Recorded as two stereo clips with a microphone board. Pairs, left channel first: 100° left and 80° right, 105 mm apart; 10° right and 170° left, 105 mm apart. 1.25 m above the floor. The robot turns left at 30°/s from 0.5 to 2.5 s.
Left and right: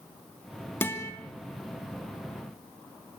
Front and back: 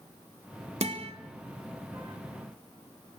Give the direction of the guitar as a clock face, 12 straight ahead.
6 o'clock.